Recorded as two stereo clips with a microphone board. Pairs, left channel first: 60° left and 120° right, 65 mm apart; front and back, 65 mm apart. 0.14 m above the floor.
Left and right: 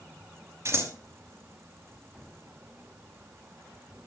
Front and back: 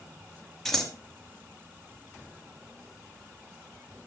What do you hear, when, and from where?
0.7 s scissors: 85° right, 2.5 m